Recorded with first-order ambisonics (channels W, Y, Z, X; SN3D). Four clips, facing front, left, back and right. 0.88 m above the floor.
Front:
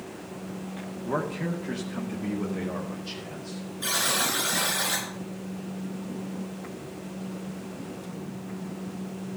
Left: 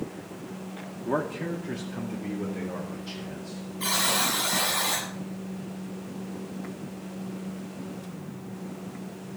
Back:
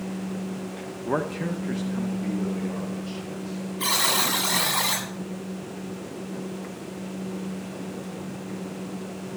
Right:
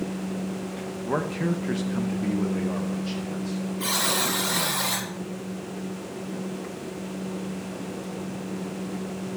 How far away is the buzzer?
About 7 m.